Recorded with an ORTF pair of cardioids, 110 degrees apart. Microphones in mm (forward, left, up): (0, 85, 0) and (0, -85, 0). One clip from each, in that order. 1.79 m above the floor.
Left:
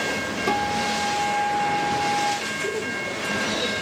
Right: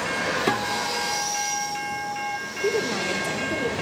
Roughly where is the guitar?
Ahead right.